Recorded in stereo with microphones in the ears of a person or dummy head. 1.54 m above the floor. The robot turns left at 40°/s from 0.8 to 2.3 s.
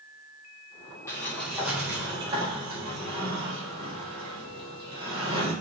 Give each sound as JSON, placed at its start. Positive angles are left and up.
{"t": 1.1, "sound": "a sliding door", "azimuth_deg": 20, "distance_m": 1.4}